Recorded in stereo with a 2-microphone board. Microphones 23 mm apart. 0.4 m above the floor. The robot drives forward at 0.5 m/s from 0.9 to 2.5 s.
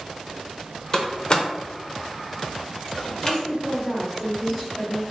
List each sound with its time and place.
0.9 s a door slam: 25° left (ahead or behind), 0.7 m; by 3.4 s 30° left (ahead or behind), 0.7 m
3.2 s a woman speaking: 15° left (ahead or behind), 1.5 m